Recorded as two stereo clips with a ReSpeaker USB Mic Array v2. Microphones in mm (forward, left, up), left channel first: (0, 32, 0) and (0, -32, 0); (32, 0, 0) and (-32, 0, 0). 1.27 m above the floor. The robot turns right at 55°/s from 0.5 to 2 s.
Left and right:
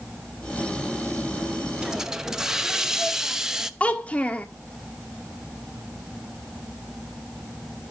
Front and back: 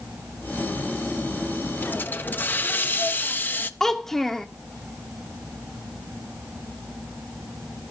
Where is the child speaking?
75° left, 0.5 m.